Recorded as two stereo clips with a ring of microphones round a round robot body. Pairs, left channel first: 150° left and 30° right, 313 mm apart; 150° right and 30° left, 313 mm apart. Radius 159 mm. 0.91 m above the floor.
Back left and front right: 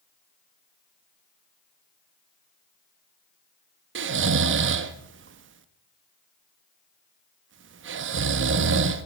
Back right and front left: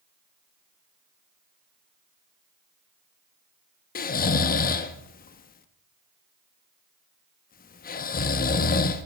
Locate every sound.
4.0 s snoring: 85° right, 0.7 m